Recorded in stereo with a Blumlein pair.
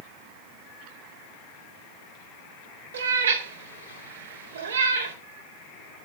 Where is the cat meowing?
65° right, 2 m.